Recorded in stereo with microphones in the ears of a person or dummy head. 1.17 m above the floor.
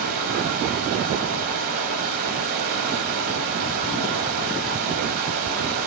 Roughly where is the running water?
Right.